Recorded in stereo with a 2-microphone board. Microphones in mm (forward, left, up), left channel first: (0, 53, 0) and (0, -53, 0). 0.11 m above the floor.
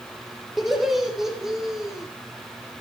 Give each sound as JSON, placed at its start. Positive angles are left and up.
{"t": 0.6, "sound": "laughter", "side_deg": 0, "distance_m": 3.5}